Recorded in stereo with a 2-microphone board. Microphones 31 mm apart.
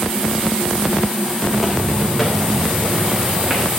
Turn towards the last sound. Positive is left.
turn(degrees=-10)  # may be behind; listen again after turning